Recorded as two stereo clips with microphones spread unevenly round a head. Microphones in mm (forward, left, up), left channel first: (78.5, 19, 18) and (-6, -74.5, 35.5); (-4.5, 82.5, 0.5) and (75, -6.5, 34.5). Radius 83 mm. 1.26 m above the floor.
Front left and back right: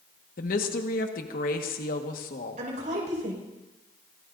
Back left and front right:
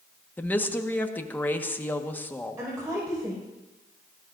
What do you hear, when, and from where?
0.4 s a woman speaking: 55° left, 1.6 m
2.6 s a woman speaking: 120° right, 5.5 m